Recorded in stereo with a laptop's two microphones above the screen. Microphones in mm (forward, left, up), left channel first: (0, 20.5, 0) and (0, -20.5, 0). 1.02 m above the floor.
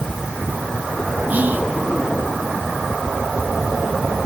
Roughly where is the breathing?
No breathing in this recording.